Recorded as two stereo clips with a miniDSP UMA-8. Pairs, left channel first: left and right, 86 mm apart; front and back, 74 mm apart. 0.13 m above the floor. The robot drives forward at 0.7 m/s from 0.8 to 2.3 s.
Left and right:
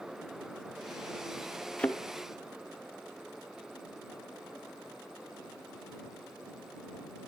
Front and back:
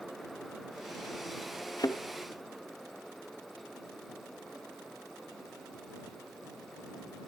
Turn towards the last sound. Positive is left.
turn(degrees=25)